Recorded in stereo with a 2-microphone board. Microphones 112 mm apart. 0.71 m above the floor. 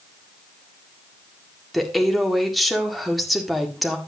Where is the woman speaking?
Centre (ahead or behind), 1.9 m.